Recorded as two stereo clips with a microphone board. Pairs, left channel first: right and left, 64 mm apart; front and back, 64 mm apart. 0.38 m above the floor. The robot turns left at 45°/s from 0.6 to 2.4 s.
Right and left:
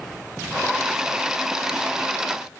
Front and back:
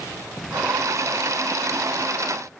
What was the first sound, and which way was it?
Only background noise.